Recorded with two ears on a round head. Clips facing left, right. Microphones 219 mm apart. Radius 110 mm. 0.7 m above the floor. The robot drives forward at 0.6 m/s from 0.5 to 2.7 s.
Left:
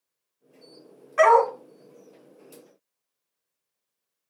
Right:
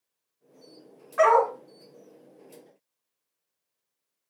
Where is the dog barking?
40° left (ahead or behind), 1.6 m; by 1.5 s 45° left (ahead or behind), 1.5 m.